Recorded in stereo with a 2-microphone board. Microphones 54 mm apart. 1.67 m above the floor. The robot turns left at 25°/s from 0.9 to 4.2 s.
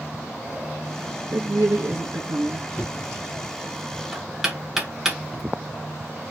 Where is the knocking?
25° left (ahead or behind), 1.2 m; by 5.4 s 10° right (ahead or behind), 1.2 m.